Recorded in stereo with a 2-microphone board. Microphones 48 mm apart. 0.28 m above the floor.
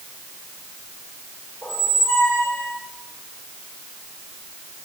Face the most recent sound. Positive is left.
turn(degrees=55)  # may be behind; listen again after turning